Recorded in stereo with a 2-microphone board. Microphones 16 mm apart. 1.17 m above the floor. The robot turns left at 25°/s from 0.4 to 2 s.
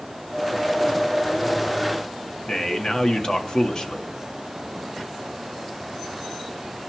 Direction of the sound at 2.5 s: 40° left (ahead or behind).